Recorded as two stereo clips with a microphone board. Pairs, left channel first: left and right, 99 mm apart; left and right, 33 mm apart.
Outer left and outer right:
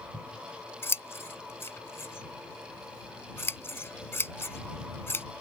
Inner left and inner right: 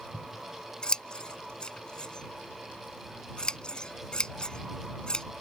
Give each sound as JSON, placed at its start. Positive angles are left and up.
{"t": 0.1, "sound": "scissors", "side_deg": 25}